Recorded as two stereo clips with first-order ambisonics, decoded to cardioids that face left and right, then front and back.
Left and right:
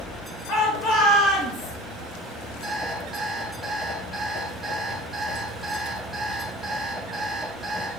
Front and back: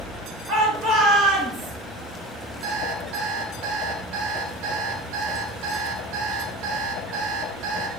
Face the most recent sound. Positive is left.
turn(degrees=175)